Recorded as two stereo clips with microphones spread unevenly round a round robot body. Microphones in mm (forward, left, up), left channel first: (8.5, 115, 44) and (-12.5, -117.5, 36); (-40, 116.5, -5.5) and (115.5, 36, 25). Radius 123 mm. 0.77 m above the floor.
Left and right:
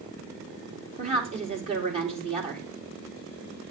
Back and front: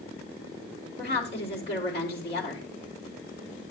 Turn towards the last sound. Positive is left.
turn(degrees=-155)